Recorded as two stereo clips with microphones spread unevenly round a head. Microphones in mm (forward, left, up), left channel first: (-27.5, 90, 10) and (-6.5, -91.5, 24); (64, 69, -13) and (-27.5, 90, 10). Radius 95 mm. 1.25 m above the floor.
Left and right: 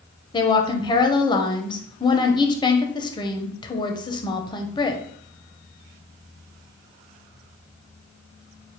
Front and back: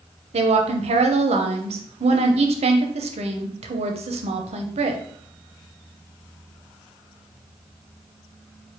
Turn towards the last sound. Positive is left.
turn(degrees=160)